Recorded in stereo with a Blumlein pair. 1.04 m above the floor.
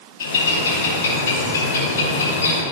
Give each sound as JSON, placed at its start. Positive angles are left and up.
{"t": 0.2, "sound": "a bird", "azimuth_deg": 65, "distance_m": 2.0}